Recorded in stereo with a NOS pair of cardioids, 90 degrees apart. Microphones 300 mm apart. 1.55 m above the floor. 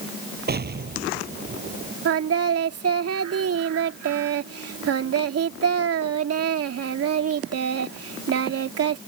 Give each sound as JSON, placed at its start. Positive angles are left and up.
{"t": 0.5, "sound": "an explosion", "azimuth_deg": -35}
{"t": 2.0, "sound": "singing", "azimuth_deg": -55}